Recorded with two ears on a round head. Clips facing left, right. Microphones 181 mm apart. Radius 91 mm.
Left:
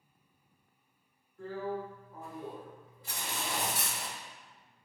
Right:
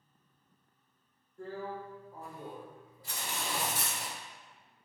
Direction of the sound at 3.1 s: 35° left (ahead or behind).